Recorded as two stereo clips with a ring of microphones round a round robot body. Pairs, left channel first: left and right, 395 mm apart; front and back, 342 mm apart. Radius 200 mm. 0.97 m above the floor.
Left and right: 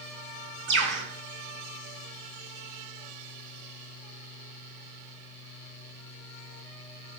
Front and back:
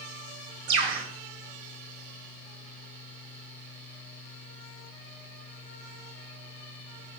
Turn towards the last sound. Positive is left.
turn(degrees=-155)